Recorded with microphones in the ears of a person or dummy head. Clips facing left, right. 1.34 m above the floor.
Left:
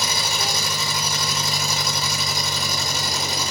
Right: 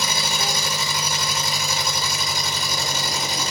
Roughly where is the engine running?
Left.